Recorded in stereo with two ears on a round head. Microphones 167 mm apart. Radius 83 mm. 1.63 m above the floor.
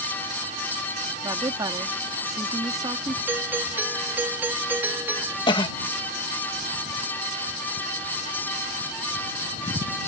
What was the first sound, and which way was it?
A woman speaking, 20° right (ahead or behind).